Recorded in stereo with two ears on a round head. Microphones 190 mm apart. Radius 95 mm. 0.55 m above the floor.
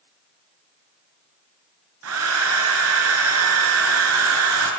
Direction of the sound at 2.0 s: 80° right.